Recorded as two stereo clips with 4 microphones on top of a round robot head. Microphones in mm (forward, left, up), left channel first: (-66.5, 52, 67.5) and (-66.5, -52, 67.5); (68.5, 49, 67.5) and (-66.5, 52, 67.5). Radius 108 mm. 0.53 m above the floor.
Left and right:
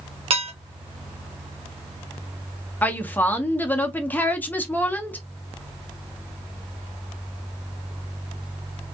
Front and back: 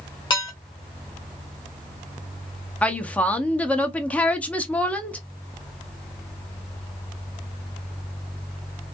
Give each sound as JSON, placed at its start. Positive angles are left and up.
{"t": 0.3, "sound": "dishes clattering", "azimuth_deg": -65, "distance_m": 1.3}
{"t": 2.8, "sound": "a woman speaking", "azimuth_deg": 60, "distance_m": 0.7}